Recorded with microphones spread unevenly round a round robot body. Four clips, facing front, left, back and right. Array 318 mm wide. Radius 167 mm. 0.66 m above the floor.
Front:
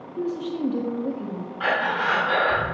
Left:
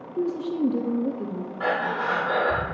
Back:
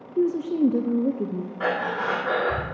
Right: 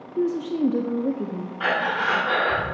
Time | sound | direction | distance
0.2 | a woman speaking | 150° right | 0.5 m
1.6 | breathing | 165° left | 1.7 m